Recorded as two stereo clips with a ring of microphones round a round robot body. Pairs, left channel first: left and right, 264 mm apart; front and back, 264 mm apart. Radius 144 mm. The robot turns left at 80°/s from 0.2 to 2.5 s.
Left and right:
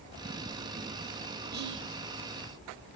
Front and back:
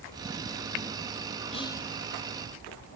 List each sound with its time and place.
1.5 s whispering: 55° right, 1.7 m; by 1.9 s 85° right, 1.7 m